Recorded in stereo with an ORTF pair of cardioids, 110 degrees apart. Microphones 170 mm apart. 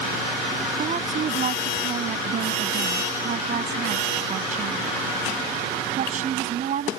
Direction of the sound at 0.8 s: 50° right.